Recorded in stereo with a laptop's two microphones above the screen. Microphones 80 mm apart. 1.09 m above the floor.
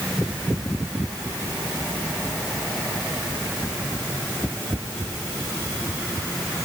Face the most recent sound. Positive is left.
No sound to turn to.